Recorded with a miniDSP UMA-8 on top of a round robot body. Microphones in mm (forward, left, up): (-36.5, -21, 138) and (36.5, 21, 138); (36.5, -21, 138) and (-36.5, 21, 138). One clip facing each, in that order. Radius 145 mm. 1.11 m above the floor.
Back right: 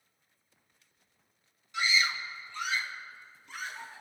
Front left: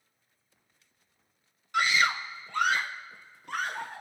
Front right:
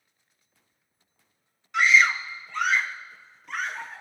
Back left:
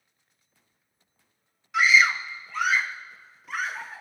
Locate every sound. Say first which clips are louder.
1.7 s a scream: front left 5 dB, even; 60° left, 0.9 m